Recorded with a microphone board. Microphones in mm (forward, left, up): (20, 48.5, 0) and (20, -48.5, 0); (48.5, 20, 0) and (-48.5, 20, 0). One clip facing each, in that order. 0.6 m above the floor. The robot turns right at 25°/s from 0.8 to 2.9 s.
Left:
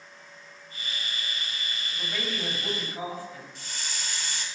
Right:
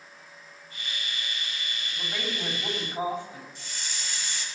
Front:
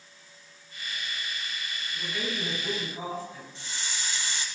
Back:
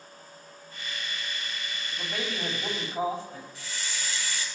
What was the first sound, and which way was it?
A man speaking, straight behind.